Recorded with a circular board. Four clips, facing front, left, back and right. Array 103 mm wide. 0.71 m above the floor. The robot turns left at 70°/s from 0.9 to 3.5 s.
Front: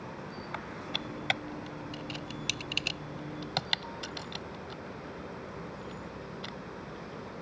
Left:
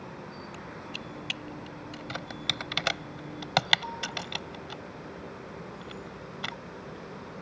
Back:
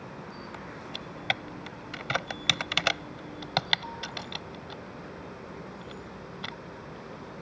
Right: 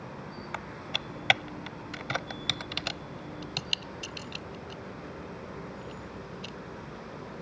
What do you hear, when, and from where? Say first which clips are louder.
0.5 s typing on a keyboard: right 2 dB, front 1 dB; 70° right; by 6.5 s 110° left